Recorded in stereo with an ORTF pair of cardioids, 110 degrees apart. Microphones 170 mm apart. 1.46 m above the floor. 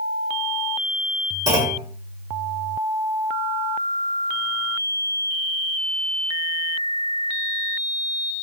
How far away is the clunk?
About 1.6 m.